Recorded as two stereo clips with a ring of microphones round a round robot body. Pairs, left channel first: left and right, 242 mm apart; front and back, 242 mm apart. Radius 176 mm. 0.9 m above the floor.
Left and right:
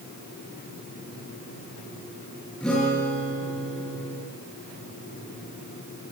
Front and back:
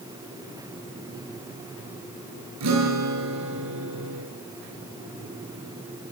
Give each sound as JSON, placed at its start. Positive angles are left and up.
{"t": 2.6, "sound": "a guitar", "azimuth_deg": 175, "distance_m": 7.0}